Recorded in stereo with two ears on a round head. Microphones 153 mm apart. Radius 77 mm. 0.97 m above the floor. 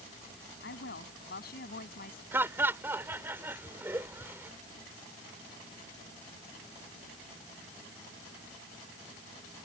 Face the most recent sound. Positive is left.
turn(degrees=-15)  # may be behind; listen again after turning